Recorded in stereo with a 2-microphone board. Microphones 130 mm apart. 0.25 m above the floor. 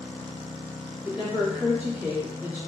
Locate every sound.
1.0 s a woman speaking: 15° right (ahead or behind), 1.6 m